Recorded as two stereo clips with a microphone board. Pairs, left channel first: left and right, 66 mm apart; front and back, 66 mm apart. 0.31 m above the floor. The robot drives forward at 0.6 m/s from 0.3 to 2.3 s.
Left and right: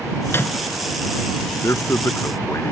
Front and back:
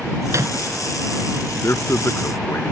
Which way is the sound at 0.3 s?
140° left.